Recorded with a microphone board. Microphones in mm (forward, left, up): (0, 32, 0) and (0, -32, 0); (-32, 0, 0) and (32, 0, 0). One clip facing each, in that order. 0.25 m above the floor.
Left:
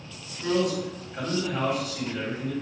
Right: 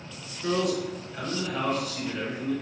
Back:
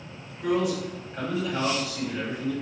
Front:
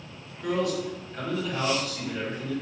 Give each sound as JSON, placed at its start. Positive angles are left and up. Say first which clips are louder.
{"t": 0.4, "sound": "a man speaking", "louder": "left 1 dB, back 2 dB", "azimuth_deg": 120, "distance_m": 2.0}